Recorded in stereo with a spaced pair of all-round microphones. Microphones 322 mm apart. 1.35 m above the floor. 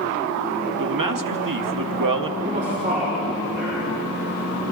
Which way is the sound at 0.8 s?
80° right.